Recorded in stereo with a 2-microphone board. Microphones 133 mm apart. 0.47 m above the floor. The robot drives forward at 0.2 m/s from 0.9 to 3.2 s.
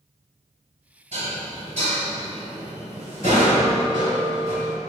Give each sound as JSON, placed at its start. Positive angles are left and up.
{"t": 1.1, "sound": "dishes clattering", "side_deg": -65, "distance_m": 1.9}